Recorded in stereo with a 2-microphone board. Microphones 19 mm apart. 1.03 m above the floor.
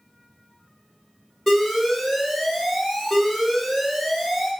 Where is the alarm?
10° left (ahead or behind), 1.6 m.